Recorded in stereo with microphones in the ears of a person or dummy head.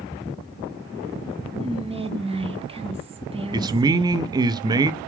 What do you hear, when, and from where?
1.6 s whispering: 20° right (ahead or behind), 0.8 m
3.5 s a man speaking: 20° right (ahead or behind), 0.6 m